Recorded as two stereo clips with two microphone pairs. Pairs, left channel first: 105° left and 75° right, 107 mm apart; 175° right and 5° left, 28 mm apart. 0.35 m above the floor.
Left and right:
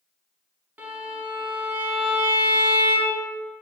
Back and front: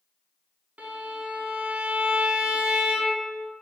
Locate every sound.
0.8 s a violin: 5° right, 0.6 m